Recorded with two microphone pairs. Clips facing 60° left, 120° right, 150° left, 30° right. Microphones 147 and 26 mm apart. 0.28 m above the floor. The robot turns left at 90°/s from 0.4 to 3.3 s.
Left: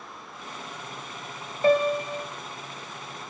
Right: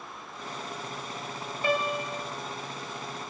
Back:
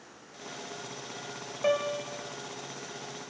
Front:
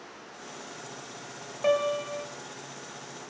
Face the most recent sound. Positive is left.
turn(degrees=-95)